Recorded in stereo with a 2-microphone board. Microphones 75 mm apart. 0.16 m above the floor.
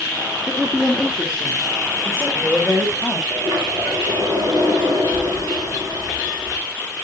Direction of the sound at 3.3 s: 55° right (ahead or behind).